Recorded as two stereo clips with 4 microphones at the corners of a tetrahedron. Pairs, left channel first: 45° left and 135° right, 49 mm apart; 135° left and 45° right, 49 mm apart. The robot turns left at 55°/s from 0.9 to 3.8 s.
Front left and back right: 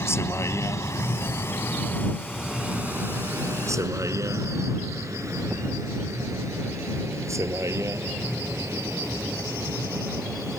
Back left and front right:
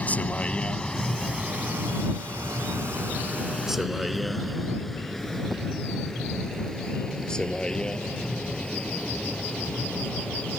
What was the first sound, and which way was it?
A vehicle, 75° left.